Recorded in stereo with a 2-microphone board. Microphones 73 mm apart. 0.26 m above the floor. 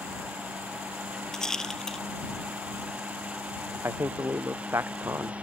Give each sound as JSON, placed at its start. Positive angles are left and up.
{"t": 1.3, "sound": "a rattle", "side_deg": 10}
{"t": 3.8, "sound": "a man speaking", "side_deg": -35}